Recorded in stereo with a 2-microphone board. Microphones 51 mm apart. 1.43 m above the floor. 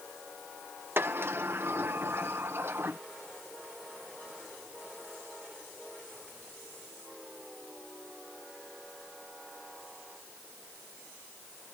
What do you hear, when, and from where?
1.0 s a sliding door: 50° right (ahead or behind)